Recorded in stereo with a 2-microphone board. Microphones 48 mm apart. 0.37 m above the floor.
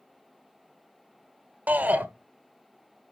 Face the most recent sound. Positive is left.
turn(degrees=-35)  # may be behind; listen again after turning